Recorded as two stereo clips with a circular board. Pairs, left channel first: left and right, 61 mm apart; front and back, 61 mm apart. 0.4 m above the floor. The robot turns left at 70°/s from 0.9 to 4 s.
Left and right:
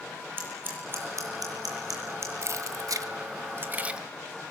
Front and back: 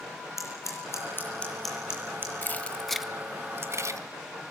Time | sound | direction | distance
0.4 | scissors | 35° right | 8 m
2.4 | keys jangling | 55° right | 1.6 m